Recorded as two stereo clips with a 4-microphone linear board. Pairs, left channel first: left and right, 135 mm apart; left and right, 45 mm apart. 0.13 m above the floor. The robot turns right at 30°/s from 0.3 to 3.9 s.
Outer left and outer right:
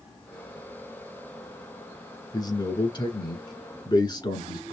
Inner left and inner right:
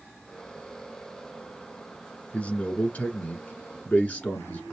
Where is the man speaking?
65° left, 1.3 m; by 4.7 s 110° left, 1.3 m.